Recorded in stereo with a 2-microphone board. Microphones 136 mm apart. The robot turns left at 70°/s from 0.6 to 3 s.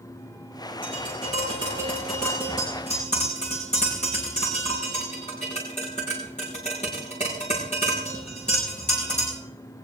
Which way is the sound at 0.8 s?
85° right.